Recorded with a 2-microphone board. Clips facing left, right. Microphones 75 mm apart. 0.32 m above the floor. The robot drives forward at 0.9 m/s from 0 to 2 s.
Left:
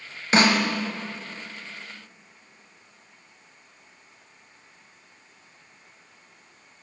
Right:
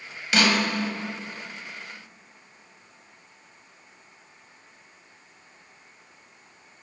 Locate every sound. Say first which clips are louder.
0.3 s a snare drum: left 2 dB; 35° left (ahead or behind), 0.7 m; by 0.6 s 25° left (ahead or behind), 0.9 m